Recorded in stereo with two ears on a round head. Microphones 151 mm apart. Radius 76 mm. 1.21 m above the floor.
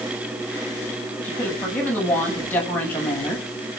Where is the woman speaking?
10° left (ahead or behind), 9 m.